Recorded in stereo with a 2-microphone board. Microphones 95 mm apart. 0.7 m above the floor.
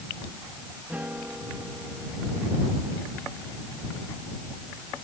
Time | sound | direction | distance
0.9 | a guitar | 15° right (ahead or behind) | ?